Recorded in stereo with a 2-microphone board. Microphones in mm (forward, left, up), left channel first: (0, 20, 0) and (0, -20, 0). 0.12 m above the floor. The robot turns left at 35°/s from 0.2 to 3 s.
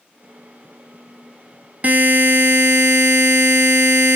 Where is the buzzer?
40° right, 0.8 m; by 4.2 s 85° right, 0.8 m.